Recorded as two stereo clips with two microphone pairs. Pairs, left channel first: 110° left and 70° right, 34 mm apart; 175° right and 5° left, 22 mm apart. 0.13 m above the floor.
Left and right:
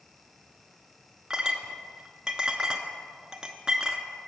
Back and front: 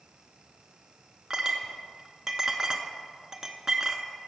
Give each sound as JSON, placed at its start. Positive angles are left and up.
{"t": 1.3, "sound": "a clink", "azimuth_deg": -30, "distance_m": 0.8}